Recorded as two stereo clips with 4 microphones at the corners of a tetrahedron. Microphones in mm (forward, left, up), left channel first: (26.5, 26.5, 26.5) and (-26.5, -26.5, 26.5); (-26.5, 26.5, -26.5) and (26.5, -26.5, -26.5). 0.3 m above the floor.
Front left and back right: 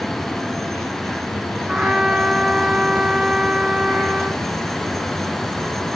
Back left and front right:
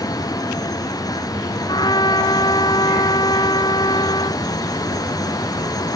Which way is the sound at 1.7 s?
145° left.